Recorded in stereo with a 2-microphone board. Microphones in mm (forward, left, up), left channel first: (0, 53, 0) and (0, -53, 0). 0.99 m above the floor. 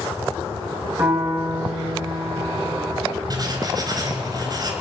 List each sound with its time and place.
1.0 s a piano: 20° right (ahead or behind), 6.5 m
3.3 s writing: 40° right (ahead or behind), 3.5 m